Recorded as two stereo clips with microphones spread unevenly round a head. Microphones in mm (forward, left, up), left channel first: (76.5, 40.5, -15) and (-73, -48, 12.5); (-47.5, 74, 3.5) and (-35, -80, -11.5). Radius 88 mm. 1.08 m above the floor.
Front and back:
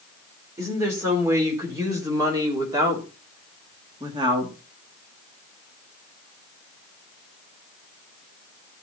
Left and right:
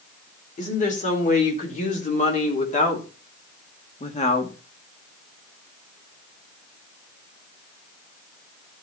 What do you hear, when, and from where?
0.6 s a woman speaking: 135° left, 4 m; by 4.6 s 140° left, 2 m